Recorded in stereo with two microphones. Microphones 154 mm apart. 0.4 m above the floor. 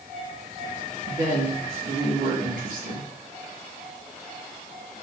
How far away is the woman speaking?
About 3.5 m.